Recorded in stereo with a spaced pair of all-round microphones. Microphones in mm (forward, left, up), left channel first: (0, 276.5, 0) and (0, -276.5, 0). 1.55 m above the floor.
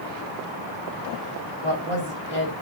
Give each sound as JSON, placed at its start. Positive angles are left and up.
{"t": 1.6, "sound": "a woman speaking", "side_deg": 60, "distance_m": 4.5}